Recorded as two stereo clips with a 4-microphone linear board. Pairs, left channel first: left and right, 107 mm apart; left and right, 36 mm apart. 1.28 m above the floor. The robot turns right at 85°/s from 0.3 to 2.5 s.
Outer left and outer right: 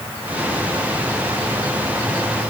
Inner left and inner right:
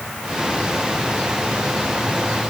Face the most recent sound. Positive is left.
No sound to turn to.